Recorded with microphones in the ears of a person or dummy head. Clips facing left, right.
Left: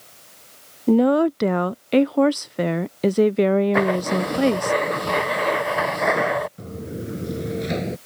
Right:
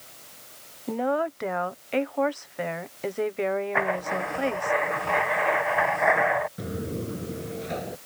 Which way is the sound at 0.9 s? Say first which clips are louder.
Left 10 dB; 45° left (ahead or behind).